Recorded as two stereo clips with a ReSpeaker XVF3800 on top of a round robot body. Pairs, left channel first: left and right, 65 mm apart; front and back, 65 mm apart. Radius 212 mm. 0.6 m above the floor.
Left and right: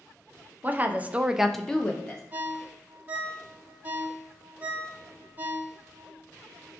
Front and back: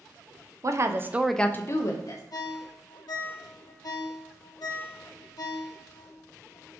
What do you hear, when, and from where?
0.6 s a woman speaking: 150° right, 0.8 m; by 2.2 s 20° left, 0.9 m
2.3 s a ringtone: 25° right, 0.6 m